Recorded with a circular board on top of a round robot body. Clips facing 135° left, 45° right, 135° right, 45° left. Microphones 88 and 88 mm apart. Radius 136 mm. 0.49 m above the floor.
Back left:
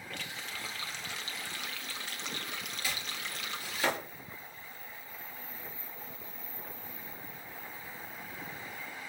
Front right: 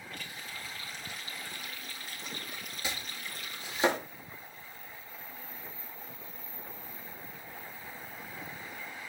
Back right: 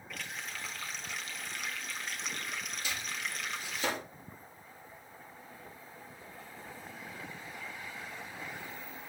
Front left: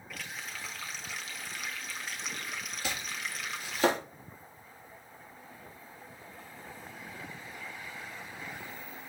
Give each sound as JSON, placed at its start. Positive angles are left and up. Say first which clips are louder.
{"t": 0.1, "sound": "a running tap", "louder": "back left 3 dB, even", "azimuth_deg": 135, "distance_m": 1.6}
{"t": 2.8, "sound": "chopping", "louder": "front right 1 dB, front left 3 dB", "azimuth_deg": 20, "distance_m": 4.0}